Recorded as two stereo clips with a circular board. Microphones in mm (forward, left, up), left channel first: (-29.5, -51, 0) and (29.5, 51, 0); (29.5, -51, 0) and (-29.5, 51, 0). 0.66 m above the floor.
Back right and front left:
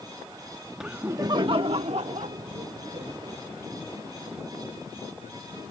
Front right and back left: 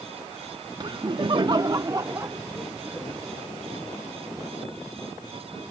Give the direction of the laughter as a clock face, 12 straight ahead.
7 o'clock.